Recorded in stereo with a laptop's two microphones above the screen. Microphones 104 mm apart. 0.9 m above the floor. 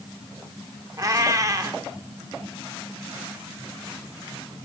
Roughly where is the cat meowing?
Right.